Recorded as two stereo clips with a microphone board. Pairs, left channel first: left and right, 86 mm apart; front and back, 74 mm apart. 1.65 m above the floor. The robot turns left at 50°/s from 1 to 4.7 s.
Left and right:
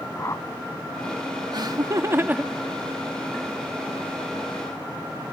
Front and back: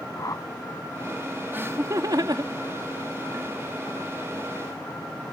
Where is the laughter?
120° right; by 3.5 s 145° left.